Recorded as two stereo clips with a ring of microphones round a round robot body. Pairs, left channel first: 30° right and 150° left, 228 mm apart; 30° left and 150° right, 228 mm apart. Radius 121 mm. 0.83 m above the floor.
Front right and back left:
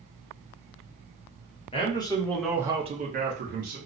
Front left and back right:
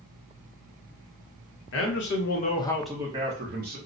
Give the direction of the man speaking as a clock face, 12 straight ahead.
11 o'clock.